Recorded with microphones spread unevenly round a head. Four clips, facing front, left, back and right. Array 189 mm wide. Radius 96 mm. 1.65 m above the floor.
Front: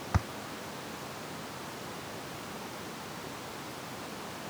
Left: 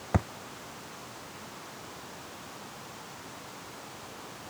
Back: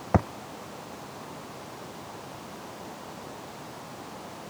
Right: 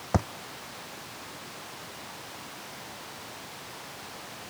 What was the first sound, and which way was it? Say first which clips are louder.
A thud: right 2 dB, back 11 dB; 170° right.